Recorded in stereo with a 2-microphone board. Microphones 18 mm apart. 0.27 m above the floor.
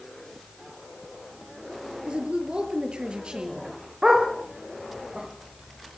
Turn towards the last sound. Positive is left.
turn(degrees=-45)  # may be behind; listen again after turning